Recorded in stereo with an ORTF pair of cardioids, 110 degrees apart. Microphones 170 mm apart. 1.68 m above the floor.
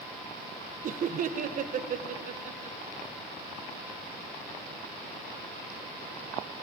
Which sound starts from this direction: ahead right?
Laughter, at 0.8 s.